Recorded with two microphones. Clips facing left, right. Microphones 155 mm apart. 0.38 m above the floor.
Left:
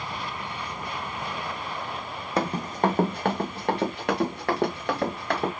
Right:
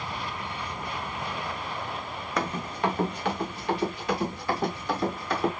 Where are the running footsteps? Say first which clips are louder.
Left 4 dB; 30° left (ahead or behind), 0.8 m; by 5.5 s 75° left (ahead or behind), 2.5 m.